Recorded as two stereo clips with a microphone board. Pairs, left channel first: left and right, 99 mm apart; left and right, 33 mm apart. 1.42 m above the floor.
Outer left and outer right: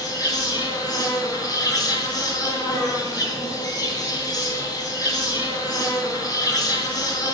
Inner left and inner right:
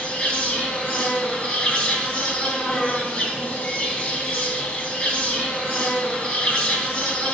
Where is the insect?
40° left (ahead or behind), 3.5 m.